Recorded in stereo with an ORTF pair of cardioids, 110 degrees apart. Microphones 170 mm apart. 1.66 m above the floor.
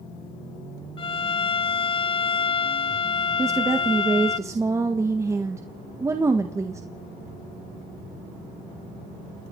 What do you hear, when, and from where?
1.0 s a violin: 30° left, 0.8 m
3.4 s a woman speaking: 15° right, 1.7 m